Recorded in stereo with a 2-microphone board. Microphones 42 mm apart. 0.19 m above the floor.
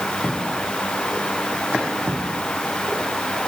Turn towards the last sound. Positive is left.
No sound to turn to.